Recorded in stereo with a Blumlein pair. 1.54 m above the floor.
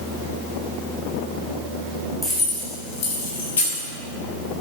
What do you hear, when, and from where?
2.2 s keys jangling: 10° left, 2 m; by 3.9 s 75° left, 2.5 m